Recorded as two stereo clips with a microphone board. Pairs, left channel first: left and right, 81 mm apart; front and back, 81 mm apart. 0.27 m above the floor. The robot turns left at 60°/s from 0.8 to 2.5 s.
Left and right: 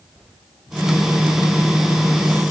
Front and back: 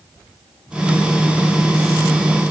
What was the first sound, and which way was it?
Only background noise.